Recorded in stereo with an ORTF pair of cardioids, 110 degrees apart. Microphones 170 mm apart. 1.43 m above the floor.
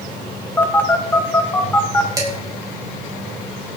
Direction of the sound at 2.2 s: 20° right.